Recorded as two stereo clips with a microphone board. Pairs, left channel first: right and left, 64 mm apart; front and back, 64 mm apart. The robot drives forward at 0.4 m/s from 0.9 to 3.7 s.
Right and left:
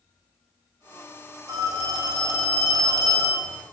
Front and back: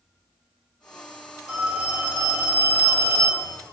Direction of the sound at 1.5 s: 105° left.